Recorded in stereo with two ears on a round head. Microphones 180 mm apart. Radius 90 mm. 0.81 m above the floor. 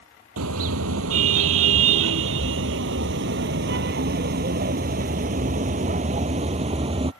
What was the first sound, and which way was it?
A car horn, 80° right.